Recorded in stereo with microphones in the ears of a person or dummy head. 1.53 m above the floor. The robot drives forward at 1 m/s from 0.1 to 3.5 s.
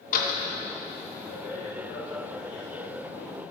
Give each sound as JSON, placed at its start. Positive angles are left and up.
{"t": 0.1, "sound": "a door slam", "side_deg": 45, "distance_m": 1.2}